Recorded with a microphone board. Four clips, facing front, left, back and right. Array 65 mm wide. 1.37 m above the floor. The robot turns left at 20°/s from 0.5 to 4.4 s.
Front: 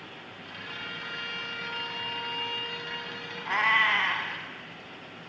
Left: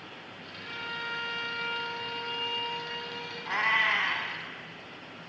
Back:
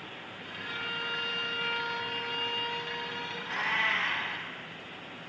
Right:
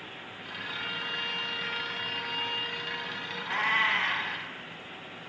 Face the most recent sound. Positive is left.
turn(degrees=0)